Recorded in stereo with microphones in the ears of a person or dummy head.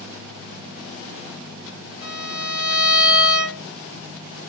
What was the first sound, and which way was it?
A violin, 5° right (ahead or behind).